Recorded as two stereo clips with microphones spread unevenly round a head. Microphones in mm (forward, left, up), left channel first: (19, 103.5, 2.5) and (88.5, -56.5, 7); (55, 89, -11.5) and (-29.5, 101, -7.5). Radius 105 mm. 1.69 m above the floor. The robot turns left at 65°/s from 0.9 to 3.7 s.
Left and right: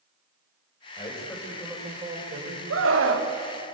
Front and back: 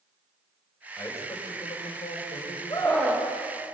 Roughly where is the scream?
Right.